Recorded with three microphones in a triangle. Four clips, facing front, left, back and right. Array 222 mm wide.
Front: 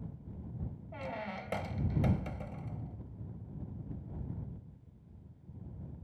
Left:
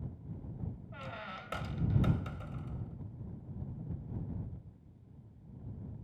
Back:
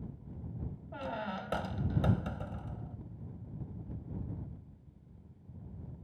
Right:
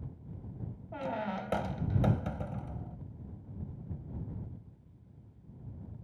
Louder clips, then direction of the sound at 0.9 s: Right 13 dB, back 3 dB; 100° right.